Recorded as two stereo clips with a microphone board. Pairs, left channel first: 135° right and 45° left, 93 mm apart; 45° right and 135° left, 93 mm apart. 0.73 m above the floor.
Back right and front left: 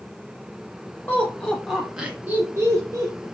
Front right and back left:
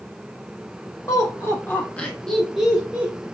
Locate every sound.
1.1 s laughter: 80° right, 0.9 m; by 3.2 s 65° left, 1.0 m